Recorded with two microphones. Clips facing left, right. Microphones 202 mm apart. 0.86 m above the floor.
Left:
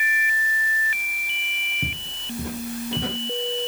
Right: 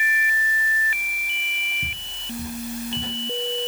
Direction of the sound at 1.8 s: 70° left (ahead or behind).